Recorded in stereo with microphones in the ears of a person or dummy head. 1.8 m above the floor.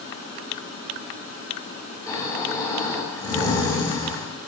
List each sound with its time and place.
2.1 s snoring: 25° left (ahead or behind), 3 m